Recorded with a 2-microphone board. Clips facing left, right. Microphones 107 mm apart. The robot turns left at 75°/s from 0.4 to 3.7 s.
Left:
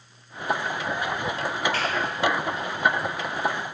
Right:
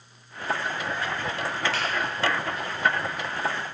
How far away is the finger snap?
About 1.2 m.